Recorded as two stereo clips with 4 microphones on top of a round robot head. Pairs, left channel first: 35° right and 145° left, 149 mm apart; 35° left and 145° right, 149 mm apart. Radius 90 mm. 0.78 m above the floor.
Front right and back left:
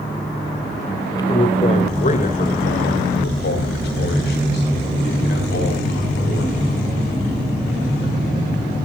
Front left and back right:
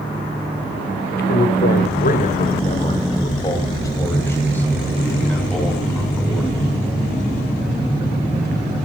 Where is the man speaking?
25° left, 3 m; by 6.5 s 55° right, 7 m.